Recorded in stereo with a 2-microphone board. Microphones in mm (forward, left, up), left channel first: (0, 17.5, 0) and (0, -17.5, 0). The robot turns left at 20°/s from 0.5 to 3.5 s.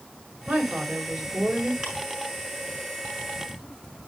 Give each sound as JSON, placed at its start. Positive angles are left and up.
{"t": 0.5, "sound": "a woman speaking", "side_deg": -55, "distance_m": 3.5}
{"t": 1.8, "sound": "ticking", "side_deg": -20, "distance_m": 5.5}